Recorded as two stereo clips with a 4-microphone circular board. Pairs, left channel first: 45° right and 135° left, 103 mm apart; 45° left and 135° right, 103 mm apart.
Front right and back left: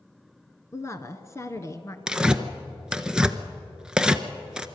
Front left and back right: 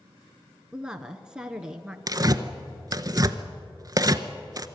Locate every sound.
0.7 s a woman speaking: 60° right, 1.2 m
2.1 s tearing paper: 145° right, 0.8 m